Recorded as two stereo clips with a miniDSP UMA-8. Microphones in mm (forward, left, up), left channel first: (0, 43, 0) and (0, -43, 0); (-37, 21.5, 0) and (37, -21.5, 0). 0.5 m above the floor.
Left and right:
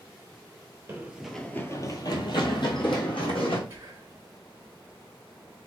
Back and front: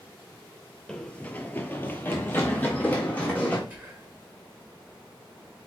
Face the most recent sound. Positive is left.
turn(degrees=-70)